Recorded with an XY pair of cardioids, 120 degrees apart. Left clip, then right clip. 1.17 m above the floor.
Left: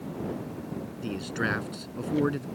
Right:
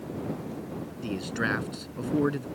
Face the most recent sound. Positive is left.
turn(degrees=0)